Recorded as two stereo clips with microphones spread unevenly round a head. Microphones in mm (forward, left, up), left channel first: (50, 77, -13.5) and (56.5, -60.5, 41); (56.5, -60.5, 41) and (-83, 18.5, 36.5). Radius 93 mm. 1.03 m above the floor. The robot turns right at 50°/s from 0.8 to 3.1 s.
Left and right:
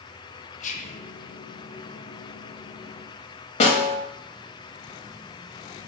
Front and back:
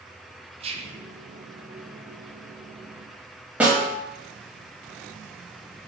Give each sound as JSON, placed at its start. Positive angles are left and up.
{"t": 0.6, "sound": "whispering", "azimuth_deg": 95, "distance_m": 0.5}
{"t": 3.6, "sound": "a snare drum", "azimuth_deg": 70, "distance_m": 0.9}